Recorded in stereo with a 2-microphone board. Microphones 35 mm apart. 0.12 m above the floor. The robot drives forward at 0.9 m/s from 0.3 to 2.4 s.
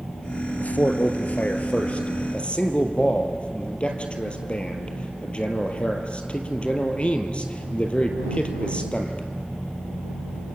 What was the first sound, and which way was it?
A man speaking, 50° left (ahead or behind).